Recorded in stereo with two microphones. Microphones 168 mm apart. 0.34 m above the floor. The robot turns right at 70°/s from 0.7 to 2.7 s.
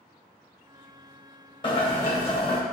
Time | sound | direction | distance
1.6 | boiling | 50° left | 1.7 m